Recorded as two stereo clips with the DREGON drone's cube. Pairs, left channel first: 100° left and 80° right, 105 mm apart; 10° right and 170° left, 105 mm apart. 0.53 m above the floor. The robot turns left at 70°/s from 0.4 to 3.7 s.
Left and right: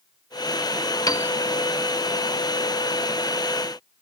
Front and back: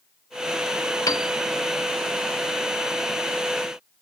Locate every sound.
1.1 s a piano: 45° left, 0.5 m; by 1.3 s 25° left, 0.5 m